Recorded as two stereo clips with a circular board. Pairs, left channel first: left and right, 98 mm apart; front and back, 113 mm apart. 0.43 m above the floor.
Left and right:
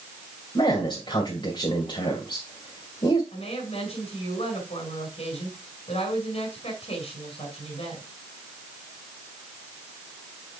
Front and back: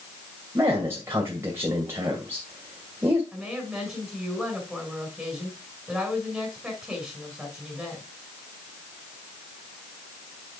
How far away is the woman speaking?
About 5 m.